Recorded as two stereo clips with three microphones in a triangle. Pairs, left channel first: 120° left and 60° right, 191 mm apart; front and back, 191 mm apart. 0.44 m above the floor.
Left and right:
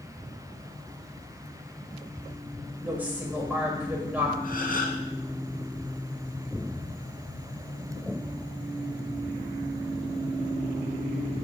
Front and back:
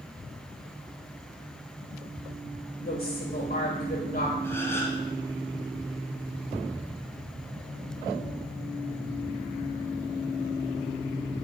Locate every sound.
2.8 s a woman speaking: 20° left, 2.0 m
4.4 s a gasp: 75° left, 1.5 m